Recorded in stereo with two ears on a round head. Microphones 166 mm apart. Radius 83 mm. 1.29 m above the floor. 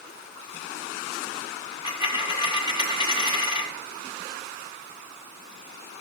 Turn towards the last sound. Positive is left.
turn(degrees=25)  # may be behind; listen again after turning